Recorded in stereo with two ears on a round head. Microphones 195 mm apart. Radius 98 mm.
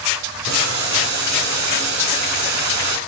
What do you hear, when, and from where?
0.5 s boiling: 55° right (ahead or behind), 2.5 m